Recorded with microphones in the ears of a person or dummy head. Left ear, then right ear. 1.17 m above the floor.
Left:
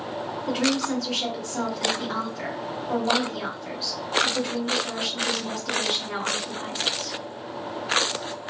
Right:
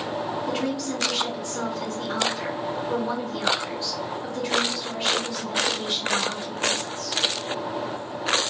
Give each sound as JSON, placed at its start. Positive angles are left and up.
{"t": 0.5, "sound": "a woman speaking", "side_deg": 25, "distance_m": 1.3}